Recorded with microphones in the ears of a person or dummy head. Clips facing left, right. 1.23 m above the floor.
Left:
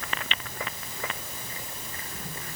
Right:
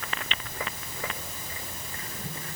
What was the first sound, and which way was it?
Only background noise.